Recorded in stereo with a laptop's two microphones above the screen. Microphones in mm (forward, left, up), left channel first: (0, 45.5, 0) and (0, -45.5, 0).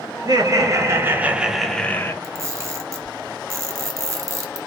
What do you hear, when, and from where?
0.2 s laughter: 45° right (ahead or behind), 1.1 m; by 2.1 s 25° left (ahead or behind), 0.6 m
2.2 s a camera shutter: 30° right (ahead or behind), 0.6 m